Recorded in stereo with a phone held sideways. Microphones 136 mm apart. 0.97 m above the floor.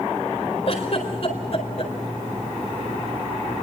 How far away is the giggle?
About 4.5 m.